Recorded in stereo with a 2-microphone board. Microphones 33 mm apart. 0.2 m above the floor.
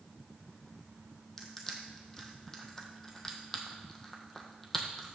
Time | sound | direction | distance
1.4 | crushing | 10° left (ahead or behind) | 1.4 m